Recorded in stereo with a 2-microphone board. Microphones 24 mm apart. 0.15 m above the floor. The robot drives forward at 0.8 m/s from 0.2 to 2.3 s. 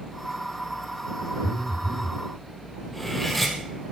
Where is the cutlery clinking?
5° left (ahead or behind), 3 m.